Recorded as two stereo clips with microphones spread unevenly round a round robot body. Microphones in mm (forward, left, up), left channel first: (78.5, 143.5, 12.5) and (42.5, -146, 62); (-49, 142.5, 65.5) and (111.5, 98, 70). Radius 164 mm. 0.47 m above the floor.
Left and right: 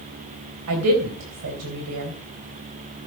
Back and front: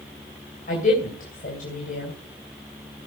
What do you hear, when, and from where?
0.7 s a woman speaking: 145° right, 3 m